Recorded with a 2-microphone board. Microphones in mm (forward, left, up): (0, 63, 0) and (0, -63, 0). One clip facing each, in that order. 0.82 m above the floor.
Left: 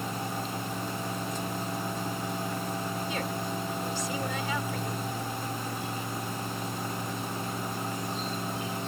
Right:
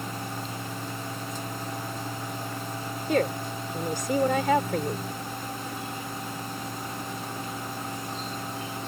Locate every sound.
3.1 s a woman speaking: 60° right (ahead or behind)